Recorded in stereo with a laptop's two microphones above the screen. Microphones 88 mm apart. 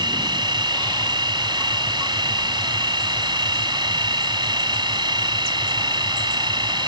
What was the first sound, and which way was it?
A machine running, 55° right (ahead or behind).